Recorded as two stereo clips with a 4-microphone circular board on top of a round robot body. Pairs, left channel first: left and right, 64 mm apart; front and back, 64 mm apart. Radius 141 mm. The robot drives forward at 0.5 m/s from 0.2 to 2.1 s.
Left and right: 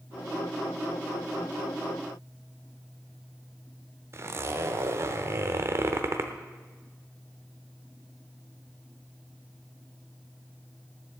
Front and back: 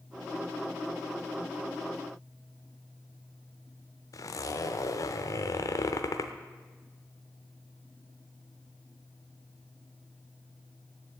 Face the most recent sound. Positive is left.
turn(degrees=-40)